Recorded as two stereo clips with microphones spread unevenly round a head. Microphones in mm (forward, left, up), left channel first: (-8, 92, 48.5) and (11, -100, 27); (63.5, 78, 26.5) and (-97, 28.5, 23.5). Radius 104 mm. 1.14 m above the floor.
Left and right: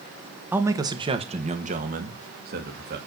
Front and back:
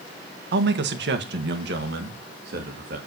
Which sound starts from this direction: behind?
A man speaking, at 0.5 s.